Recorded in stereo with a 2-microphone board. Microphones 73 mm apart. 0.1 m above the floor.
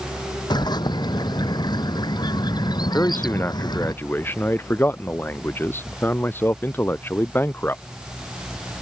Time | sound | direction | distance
0.5 | a bird | 70° left (ahead or behind) | ?
2.9 | a man speaking | 30° left (ahead or behind) | ?